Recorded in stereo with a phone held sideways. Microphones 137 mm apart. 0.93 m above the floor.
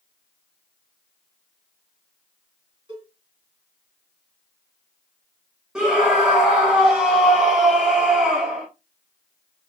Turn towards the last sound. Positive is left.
turn(degrees=-5)  # may be behind; listen again after turning